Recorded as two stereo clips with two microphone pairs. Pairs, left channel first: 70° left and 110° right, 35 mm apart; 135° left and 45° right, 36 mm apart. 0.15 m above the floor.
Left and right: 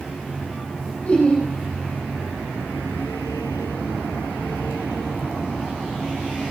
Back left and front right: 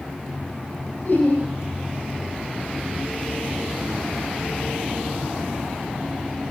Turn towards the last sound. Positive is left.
turn(degrees=125)